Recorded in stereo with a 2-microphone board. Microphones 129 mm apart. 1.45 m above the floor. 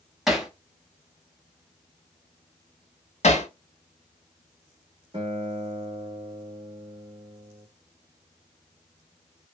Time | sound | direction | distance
0.3 | hammering | 5° right (ahead or behind) | 0.6 m
3.2 | hammering | 60° left (ahead or behind) | 0.6 m
5.1 | a guitar | 45° right (ahead or behind) | 1.2 m